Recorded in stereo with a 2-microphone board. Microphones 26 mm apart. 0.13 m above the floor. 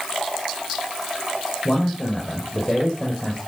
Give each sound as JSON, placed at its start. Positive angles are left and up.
{"t": 1.6, "sound": "a man speaking", "side_deg": 25, "distance_m": 6.0}